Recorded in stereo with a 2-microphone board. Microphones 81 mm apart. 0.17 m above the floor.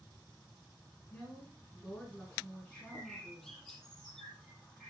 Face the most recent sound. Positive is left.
turn(degrees=5)  # may be behind; listen again after turning